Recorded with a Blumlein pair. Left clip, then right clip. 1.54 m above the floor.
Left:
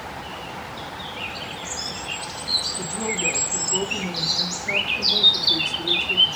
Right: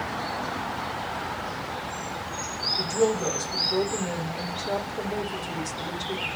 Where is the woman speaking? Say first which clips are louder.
Right 3 dB; 25° right, 1.0 m.